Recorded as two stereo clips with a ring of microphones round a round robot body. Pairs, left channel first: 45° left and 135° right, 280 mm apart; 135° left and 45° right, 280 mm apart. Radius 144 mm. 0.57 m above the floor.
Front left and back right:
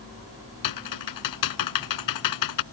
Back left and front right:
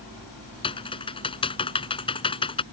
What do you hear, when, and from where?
0.6 s typing on a keyboard: 60° left